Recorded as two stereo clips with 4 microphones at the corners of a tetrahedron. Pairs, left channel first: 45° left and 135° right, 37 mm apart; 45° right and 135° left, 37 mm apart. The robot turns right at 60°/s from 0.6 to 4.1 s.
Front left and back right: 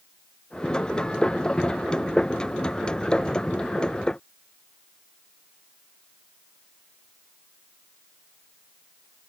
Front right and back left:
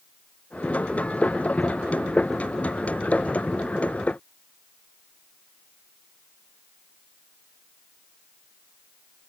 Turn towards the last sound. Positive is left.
No sound to turn to.